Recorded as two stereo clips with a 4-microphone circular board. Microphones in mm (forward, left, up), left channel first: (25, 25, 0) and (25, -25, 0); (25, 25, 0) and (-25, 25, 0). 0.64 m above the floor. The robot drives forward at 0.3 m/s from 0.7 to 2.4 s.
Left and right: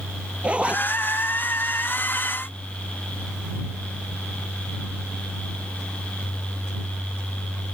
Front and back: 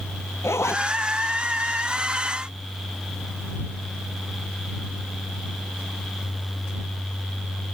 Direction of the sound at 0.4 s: 25° right.